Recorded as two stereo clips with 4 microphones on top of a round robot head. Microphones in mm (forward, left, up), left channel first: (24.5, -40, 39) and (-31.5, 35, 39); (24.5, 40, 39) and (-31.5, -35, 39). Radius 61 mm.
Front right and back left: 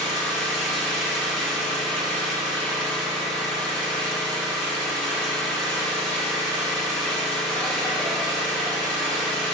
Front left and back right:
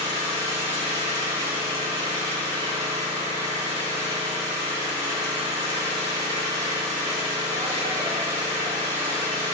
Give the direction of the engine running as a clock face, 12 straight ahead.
4 o'clock.